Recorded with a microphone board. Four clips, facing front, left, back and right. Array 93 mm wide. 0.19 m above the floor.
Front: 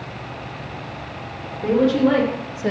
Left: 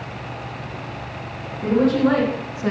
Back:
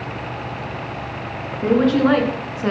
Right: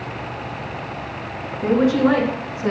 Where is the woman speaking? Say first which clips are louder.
Right 1 dB, back 1 dB; 155° right, 3 m; by 2.7 s 175° left, 1.9 m.